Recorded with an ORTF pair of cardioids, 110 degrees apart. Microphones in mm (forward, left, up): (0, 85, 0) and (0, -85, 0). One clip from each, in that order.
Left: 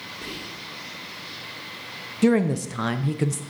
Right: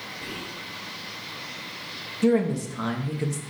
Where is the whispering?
40° left, 3.5 m.